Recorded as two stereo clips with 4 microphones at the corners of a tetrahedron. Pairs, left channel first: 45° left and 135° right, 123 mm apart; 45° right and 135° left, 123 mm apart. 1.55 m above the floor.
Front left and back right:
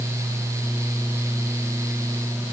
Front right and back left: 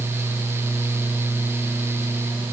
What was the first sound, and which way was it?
Only background noise.